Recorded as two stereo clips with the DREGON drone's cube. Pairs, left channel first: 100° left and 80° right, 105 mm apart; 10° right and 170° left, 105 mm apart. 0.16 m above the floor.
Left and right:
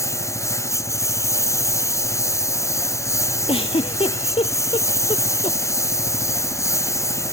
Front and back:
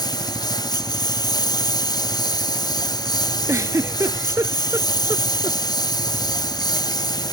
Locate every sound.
0.0 s a lawn mower: 40° left
3.5 s a giggle: 110° left